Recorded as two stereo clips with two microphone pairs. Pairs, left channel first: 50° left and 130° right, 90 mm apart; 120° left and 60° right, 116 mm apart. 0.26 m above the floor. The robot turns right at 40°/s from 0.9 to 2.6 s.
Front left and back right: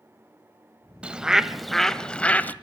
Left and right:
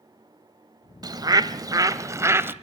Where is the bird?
65° right, 0.6 m; by 2.5 s 5° right, 0.6 m.